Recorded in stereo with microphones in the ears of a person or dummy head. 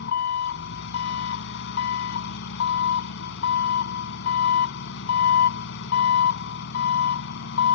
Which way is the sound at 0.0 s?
70° left (ahead or behind).